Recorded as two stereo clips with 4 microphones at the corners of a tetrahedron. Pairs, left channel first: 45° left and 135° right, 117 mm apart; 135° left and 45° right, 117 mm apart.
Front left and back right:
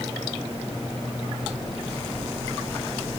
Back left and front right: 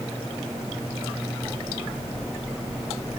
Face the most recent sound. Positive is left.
No sound to turn to.